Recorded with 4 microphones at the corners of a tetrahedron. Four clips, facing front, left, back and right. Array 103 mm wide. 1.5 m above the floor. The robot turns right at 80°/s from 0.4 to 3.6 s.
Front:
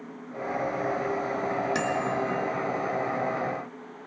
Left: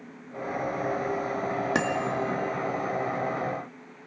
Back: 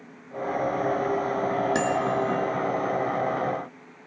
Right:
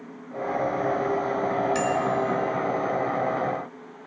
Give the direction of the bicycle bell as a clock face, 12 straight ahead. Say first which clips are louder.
Right 3 dB, back 3 dB; 8 o'clock.